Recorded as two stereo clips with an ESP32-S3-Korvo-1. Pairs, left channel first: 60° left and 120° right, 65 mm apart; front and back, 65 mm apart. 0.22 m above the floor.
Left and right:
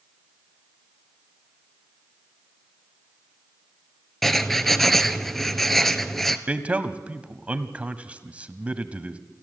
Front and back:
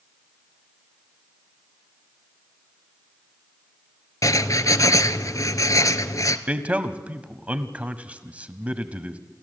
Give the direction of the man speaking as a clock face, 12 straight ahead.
5 o'clock.